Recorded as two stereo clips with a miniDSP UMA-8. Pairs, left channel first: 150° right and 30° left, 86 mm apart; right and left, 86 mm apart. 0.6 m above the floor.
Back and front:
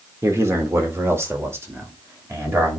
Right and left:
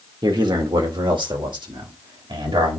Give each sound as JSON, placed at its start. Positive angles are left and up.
{"t": 0.2, "sound": "a man speaking", "azimuth_deg": 80, "distance_m": 1.6}